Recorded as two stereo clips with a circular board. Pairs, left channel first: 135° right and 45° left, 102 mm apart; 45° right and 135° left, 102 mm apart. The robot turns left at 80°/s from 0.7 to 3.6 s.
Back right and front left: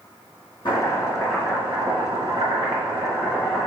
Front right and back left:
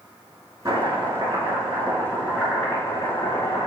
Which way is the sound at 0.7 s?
175° right.